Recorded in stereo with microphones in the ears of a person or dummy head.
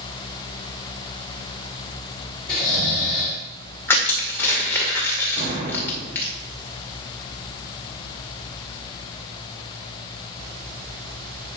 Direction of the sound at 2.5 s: 5° left (ahead or behind).